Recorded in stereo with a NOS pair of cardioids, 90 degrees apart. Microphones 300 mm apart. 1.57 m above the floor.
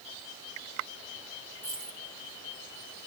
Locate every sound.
1.6 s a dropped coin: 25° right, 3.5 m